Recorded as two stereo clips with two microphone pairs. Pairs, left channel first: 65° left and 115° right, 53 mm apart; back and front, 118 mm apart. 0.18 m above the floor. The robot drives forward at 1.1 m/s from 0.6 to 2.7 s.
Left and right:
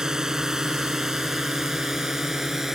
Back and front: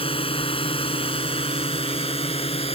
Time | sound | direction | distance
0.0 | a drone | 170° left | ?